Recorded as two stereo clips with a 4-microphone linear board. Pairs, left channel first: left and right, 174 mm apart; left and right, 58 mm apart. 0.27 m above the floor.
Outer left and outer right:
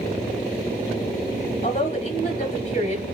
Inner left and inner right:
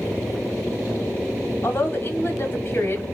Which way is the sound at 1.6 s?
40° left (ahead or behind).